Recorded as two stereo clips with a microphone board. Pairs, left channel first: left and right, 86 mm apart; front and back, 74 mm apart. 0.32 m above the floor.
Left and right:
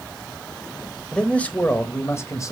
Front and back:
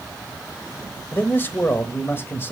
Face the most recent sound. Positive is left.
turn(degrees=50)